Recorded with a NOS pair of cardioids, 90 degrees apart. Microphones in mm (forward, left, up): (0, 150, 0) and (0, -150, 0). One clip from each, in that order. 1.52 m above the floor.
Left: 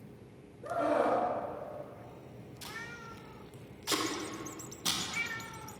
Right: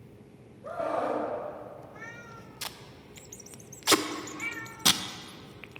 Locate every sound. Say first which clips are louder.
0.6 s a scream: left 1 dB; 40° left, 3 m
2.6 s tape being pulled: right 1 dB; 45° right, 0.5 m